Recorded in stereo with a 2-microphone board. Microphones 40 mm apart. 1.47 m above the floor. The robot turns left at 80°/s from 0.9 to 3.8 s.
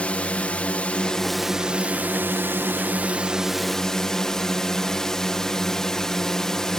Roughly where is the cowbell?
I don't hear a cowbell.